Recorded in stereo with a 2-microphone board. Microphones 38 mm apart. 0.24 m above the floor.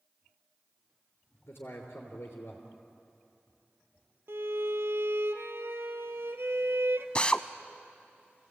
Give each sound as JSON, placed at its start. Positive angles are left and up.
{"t": 1.5, "sound": "a man speaking", "side_deg": 65, "distance_m": 3.5}
{"t": 4.3, "sound": "a violin", "side_deg": -70, "distance_m": 1.2}
{"t": 7.2, "sound": "a drill", "side_deg": 25, "distance_m": 0.7}